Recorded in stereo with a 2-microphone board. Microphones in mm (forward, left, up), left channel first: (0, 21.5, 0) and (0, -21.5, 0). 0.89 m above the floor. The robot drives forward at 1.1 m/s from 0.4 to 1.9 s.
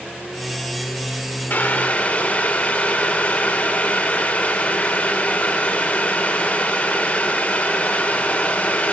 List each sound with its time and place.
1.5 s boiling: 55° left (ahead or behind), 1.3 m; by 8.9 s 40° left (ahead or behind), 1.6 m